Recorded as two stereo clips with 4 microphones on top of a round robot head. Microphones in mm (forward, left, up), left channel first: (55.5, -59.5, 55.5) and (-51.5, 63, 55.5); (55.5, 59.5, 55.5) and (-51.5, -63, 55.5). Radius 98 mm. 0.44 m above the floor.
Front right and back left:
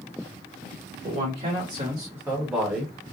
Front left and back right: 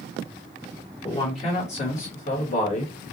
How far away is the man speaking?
About 1.9 m.